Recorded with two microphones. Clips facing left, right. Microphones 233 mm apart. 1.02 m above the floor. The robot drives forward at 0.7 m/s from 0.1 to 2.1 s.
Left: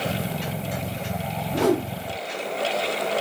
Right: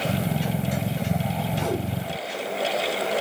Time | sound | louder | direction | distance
1.5 | a whoosh | left 9 dB | 80° left | 1.7 m